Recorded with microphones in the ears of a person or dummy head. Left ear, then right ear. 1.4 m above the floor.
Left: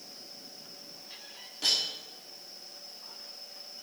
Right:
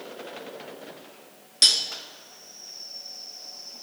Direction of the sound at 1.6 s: 60° right (ahead or behind).